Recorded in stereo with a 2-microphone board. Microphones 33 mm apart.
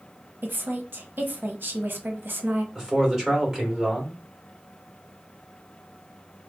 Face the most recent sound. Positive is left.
turn(degrees=-15)  # may be behind; listen again after turning